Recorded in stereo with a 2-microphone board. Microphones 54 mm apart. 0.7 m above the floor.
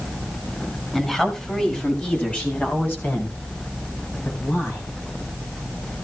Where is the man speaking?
10° left (ahead or behind), 6 m; by 4.8 s 45° left (ahead or behind), 8.5 m.